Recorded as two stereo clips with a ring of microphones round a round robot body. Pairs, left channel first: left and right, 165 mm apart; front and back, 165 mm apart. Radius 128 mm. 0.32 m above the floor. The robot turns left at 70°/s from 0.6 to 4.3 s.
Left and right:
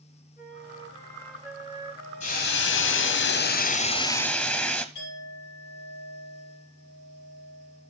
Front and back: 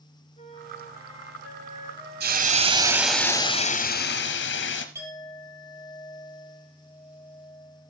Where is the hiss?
155° left, 1.4 m; by 4.8 s 10° left, 1.4 m.